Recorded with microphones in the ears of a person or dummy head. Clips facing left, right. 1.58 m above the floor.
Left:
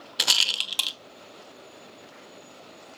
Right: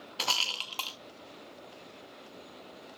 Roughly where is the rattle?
Centre.